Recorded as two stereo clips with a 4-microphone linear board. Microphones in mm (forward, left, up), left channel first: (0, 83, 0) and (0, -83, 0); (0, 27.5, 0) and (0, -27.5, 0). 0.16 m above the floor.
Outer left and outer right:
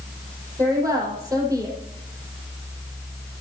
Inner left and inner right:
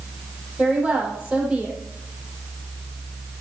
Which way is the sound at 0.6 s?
20° right (ahead or behind).